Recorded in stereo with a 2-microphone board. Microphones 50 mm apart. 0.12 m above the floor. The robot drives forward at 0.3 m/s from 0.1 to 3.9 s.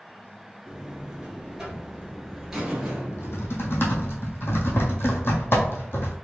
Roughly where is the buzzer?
Centre.